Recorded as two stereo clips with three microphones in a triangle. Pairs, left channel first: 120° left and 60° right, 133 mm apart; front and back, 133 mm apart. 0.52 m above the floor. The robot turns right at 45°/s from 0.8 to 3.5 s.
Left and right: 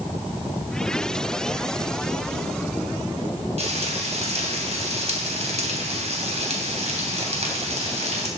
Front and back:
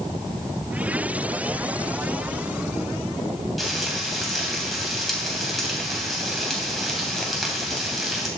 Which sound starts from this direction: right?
Frying, at 3.6 s.